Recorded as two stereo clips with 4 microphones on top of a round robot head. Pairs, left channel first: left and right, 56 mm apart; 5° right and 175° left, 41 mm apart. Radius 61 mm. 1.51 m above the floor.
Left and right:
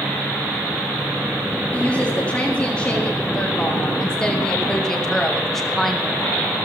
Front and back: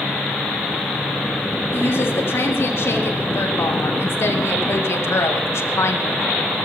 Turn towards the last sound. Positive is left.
turn(degrees=-5)